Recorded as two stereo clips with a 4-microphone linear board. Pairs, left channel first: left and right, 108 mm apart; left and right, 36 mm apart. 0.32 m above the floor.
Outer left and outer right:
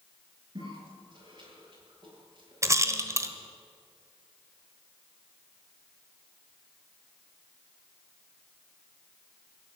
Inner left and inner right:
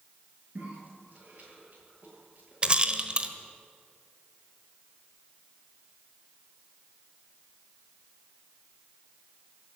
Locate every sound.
0.6 s a cough: 45° right (ahead or behind), 8 m
2.6 s a rattle: 25° right (ahead or behind), 1.2 m